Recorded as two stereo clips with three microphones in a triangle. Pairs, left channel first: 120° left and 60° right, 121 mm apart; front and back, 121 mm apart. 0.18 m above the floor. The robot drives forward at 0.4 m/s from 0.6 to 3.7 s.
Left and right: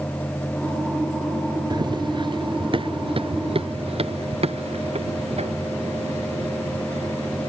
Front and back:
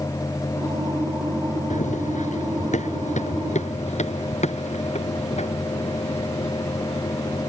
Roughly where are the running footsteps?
Ahead.